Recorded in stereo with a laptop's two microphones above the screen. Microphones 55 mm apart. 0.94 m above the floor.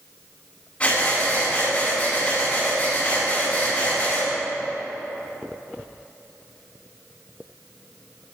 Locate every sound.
0.8 s breathing: 25° left (ahead or behind), 4.5 m